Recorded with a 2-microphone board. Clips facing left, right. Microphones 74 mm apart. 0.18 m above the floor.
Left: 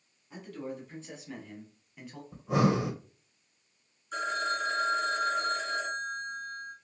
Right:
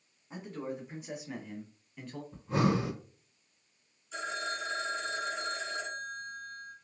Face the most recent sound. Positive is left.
turn(degrees=55)  # may be behind; listen again after turning